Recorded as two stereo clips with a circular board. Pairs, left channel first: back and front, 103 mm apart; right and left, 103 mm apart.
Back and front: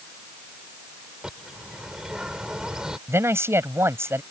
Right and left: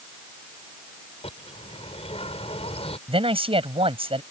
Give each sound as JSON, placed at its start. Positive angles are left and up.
{"t": 1.2, "sound": "a bird", "azimuth_deg": -85}
{"t": 3.1, "sound": "a man speaking", "azimuth_deg": 65}